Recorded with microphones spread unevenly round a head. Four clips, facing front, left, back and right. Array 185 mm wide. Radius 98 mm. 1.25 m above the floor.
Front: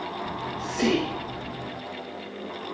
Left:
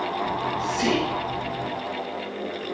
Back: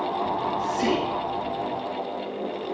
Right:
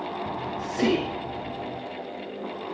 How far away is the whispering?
About 4 m.